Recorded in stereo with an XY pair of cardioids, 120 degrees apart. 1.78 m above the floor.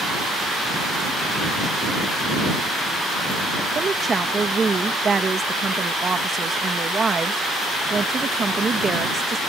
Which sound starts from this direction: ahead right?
A woman speaking, at 3.8 s.